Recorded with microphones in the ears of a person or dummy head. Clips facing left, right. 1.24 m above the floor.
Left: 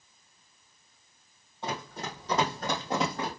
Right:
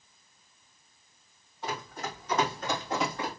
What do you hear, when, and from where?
1.6 s running footsteps: 25° left (ahead or behind), 3 m; by 3.3 s 40° left (ahead or behind), 2.5 m